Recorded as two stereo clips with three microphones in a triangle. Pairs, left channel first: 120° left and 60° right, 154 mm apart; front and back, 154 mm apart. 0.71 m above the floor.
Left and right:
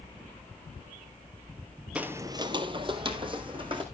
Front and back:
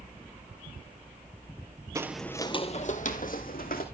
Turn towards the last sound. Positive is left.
turn(degrees=-5)